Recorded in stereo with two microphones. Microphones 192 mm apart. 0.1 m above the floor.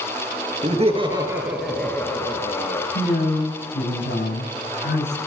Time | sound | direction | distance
0.6 | laughter | 40° right (ahead or behind) | 2 m
3.0 | a man speaking | 70° left (ahead or behind) | 7 m